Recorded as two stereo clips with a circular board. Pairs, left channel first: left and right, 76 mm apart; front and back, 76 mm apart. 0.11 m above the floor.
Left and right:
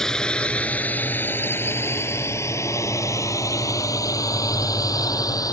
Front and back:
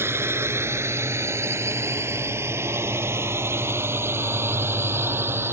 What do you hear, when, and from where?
0.0 s a drone: 170° left; by 5.5 s 125° left